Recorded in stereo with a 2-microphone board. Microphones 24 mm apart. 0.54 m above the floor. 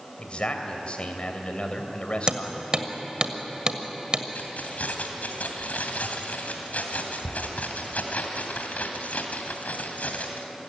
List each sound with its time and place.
0.2 s a man speaking: 45° left (ahead or behind), 2.5 m
2.3 s hammering: 35° right (ahead or behind), 1.6 m
4.3 s keys jangling: 80° left, 2.5 m